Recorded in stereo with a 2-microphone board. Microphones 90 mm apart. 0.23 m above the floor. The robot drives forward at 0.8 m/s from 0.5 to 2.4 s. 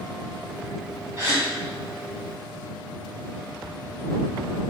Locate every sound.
1.2 s a gasp: 35° right (ahead or behind), 1.3 m